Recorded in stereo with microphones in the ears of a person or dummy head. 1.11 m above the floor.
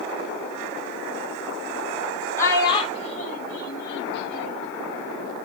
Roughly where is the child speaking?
Centre.